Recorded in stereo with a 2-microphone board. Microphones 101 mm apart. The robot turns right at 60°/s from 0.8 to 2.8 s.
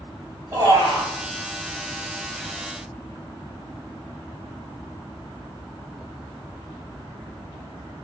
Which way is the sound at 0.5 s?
30° right (ahead or behind).